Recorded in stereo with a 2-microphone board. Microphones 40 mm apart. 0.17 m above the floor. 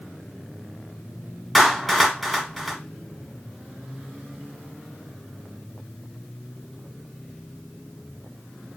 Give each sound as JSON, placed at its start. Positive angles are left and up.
{"t": 1.6, "sound": "a clap", "side_deg": 0, "distance_m": 1.3}